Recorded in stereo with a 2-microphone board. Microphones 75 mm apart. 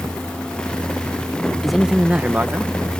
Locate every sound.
1.6 s a man speaking: 5° left (ahead or behind); by 2.7 s 35° right (ahead or behind)